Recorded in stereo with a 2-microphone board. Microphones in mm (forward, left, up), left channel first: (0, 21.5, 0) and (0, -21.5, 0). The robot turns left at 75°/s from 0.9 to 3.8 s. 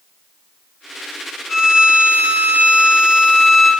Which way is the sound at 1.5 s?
5° right.